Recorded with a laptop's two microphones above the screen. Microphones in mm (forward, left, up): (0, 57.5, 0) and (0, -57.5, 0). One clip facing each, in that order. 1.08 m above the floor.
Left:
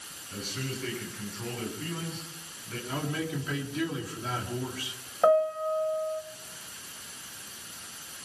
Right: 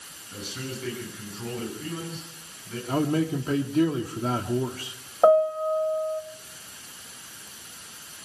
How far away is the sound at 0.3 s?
About 10 m.